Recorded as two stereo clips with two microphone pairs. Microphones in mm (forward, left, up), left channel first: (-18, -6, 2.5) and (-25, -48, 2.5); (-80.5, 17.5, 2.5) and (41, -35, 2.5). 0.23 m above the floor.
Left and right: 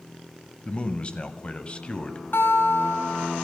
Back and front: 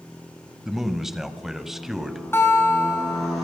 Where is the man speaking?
60° left, 1.2 m.